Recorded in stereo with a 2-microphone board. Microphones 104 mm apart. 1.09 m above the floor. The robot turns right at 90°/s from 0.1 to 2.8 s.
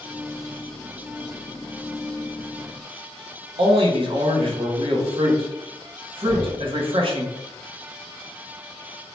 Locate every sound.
3.6 s a man speaking: 55° right (ahead or behind), 0.7 m
6.2 s knocking: 45° right (ahead or behind), 1.3 m